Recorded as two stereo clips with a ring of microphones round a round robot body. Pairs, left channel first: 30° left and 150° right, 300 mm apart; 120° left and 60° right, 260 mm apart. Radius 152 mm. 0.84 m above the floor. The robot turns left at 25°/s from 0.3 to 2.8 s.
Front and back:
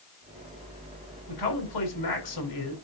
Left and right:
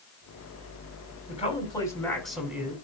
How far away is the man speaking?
About 8 m.